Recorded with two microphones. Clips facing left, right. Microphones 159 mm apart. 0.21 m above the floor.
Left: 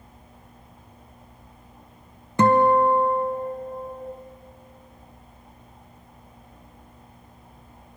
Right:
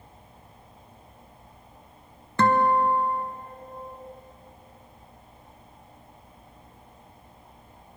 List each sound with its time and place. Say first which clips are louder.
2.4 s a guitar: left 4 dB; 15° left (ahead or behind), 0.6 m